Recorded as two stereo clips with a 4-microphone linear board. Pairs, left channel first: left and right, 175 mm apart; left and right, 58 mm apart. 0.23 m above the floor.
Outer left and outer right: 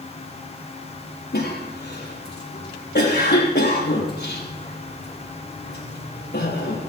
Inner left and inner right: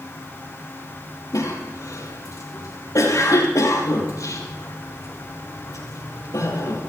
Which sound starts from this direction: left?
A cough, at 1.3 s.